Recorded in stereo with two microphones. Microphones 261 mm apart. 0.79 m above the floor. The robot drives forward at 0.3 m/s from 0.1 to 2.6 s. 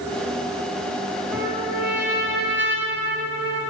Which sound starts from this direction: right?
A trumpet, at 1.3 s.